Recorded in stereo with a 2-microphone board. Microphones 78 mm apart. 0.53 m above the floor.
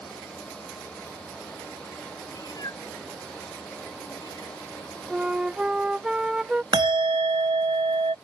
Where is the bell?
70° right (ahead or behind).